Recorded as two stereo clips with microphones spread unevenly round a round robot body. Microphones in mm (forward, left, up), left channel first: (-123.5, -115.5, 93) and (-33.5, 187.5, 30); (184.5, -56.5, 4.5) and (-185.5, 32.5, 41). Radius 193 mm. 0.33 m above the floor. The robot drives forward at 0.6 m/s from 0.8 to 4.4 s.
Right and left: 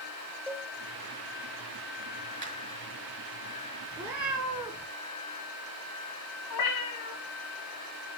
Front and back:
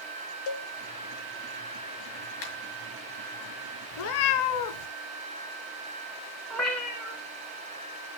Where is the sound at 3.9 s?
10° right, 1.0 m; by 4.9 s 15° right, 0.7 m.